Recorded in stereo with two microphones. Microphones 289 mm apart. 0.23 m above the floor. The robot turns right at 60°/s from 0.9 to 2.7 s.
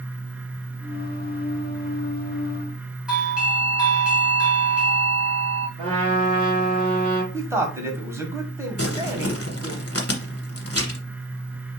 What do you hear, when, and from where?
3.1 s a doorbell: 5° right (ahead or behind), 1.5 m
5.8 s a trumpet: 20° right (ahead or behind), 3.5 m
7.3 s a man speaking: 10° right (ahead or behind), 1.2 m
8.8 s crumpling: 55° left (ahead or behind), 1.2 m